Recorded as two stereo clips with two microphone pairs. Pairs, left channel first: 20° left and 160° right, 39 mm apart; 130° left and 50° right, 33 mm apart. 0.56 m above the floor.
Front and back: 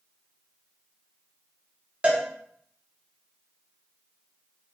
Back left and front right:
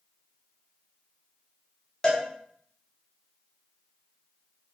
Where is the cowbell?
Straight behind, 0.6 m.